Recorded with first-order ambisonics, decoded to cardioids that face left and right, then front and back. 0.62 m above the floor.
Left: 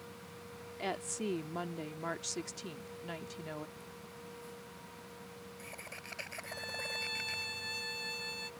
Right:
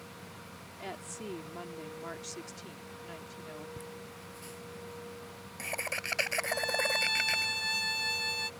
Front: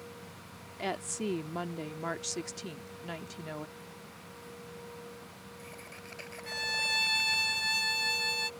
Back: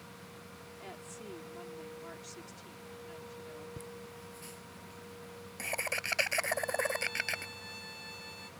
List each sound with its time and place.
0.8 s a woman speaking: 20° left
3.8 s laughter: 140° right
6.5 s a violin: 30° right